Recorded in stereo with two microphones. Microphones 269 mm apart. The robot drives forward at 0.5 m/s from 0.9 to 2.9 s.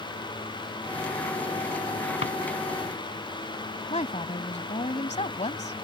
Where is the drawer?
50° left (ahead or behind).